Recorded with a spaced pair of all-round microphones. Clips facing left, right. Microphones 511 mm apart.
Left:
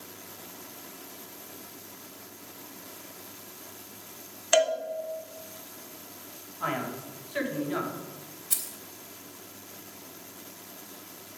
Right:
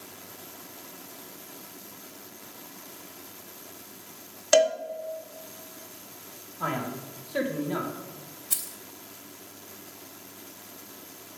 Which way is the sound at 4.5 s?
65° right (ahead or behind).